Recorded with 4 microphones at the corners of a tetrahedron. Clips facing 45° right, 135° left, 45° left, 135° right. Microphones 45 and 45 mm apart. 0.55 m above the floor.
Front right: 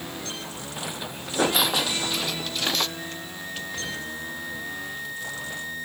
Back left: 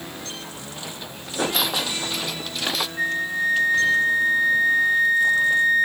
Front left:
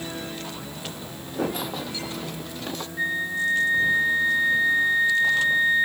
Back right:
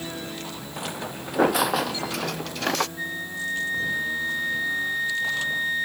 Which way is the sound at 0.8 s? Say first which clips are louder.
Front right 5 dB, back right 4 dB; 115° right.